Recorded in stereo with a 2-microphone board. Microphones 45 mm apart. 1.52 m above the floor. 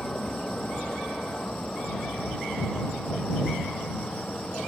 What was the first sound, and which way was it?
A vehicle, 20° left (ahead or behind).